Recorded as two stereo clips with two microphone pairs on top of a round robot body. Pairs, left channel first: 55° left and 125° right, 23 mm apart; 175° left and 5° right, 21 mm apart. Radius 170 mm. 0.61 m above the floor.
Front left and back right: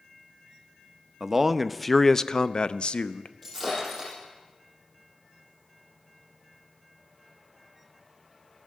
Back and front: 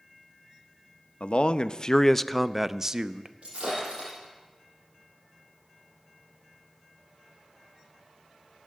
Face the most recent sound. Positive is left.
turn(degrees=-30)